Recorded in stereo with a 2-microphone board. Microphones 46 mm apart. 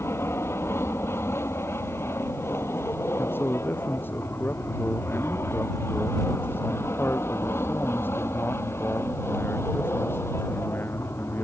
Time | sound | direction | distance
0.0 | an aircraft | 70° left (ahead or behind) | ?
3.2 | a man speaking | 50° left (ahead or behind) | ?